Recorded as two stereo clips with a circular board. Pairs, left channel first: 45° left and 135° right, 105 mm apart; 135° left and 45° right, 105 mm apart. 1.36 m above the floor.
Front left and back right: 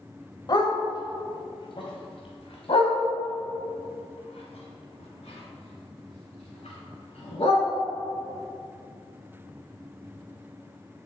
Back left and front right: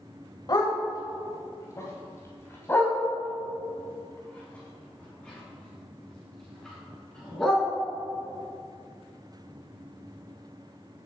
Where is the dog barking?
90° left, 2.5 m; by 7.6 s 50° left, 6 m.